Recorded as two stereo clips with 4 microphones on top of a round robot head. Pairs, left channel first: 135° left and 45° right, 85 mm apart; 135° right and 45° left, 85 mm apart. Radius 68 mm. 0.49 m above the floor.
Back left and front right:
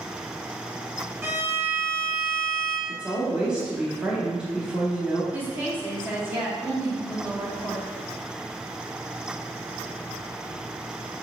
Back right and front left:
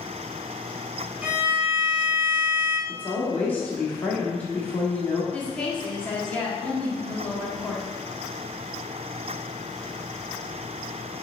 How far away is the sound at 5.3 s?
About 1.1 m.